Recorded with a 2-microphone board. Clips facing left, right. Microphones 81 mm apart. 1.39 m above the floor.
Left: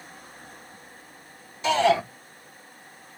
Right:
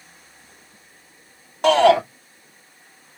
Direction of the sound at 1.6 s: 60° right (ahead or behind).